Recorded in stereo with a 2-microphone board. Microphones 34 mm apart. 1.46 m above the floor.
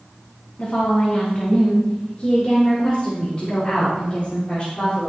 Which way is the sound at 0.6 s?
40° left (ahead or behind).